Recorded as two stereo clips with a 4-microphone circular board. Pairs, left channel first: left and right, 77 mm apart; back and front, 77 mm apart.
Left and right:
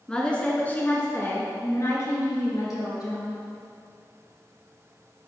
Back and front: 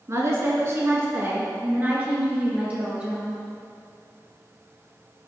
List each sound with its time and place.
0.1 s a woman speaking: 15° left, 1.5 m; by 3.4 s 75° left, 2.5 m